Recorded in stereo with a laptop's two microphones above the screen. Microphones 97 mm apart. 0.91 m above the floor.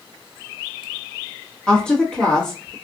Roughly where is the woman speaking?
Centre.